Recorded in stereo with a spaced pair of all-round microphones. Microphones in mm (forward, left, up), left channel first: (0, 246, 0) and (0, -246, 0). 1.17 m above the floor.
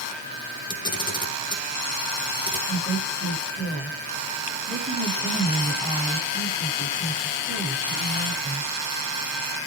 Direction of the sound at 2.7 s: Centre (ahead or behind).